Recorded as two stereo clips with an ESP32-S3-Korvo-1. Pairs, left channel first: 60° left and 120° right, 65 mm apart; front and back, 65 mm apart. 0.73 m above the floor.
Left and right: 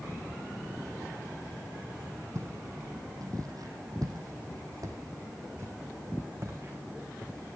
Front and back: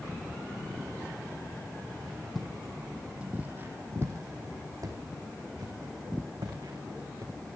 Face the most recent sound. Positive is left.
turn(degrees=-175)